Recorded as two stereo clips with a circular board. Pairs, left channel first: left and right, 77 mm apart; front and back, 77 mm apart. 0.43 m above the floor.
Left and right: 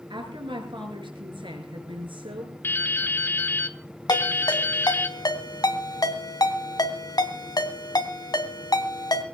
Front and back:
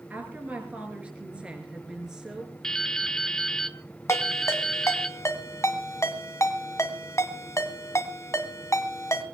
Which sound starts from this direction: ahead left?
A ringtone, at 4.1 s.